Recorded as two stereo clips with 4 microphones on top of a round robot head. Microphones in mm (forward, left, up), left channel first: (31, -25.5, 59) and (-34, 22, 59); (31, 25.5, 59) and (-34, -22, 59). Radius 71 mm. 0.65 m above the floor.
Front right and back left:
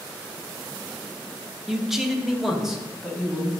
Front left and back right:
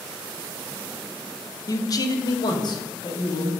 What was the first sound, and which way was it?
A man speaking, 55° left.